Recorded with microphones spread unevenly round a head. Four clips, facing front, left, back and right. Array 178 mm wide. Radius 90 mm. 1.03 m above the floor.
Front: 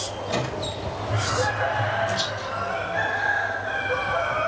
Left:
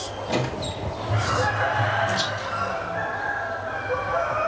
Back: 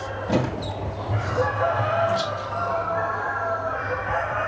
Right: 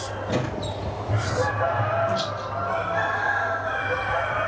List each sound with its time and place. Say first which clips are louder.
0.3 s a squeak: left 1 dB, back 4 dB; 175° right, 1.5 m
2.1 s a rattle: even, back 3 dB; 110° right, 4.5 m